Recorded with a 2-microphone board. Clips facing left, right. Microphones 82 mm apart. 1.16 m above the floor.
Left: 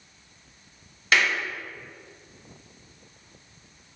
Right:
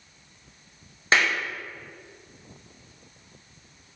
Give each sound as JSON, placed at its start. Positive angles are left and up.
{"t": 1.1, "sound": "a clap", "side_deg": -30, "distance_m": 0.6}